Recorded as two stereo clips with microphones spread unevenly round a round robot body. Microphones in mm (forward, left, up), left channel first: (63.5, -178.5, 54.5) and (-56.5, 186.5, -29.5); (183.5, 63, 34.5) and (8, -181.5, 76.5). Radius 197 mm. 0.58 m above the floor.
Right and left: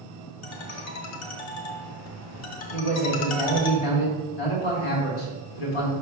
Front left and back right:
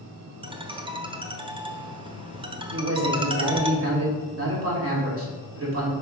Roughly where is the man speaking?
Right.